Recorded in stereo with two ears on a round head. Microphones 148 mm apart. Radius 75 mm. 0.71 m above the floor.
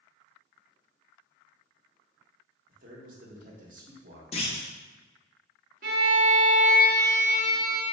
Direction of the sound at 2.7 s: 50° right (ahead or behind).